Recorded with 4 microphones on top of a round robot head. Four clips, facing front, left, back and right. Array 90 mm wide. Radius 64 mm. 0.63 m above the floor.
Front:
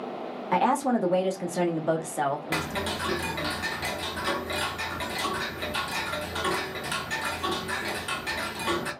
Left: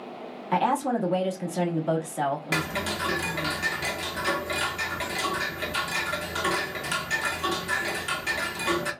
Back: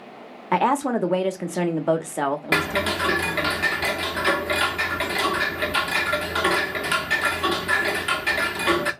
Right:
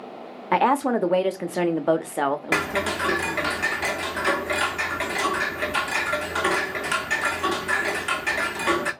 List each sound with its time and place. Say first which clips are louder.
0.5 s a woman speaking: right 4 dB, back 3 dB; 120° right, 0.9 m
2.5 s ticking: right 5 dB, back 7 dB; 140° right, 0.7 m